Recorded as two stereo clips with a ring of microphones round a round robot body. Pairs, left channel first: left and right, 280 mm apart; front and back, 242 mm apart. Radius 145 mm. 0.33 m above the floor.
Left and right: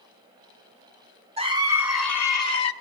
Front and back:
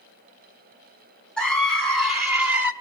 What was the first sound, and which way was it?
A scream, 80° right.